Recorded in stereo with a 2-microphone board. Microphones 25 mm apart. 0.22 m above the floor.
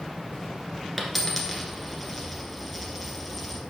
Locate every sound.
1.0 s a dropped coin: centre (ahead or behind), 1.4 m